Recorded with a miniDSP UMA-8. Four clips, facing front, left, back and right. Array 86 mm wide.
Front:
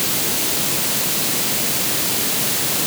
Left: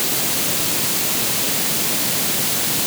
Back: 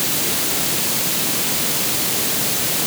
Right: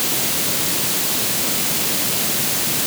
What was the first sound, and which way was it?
Only background noise.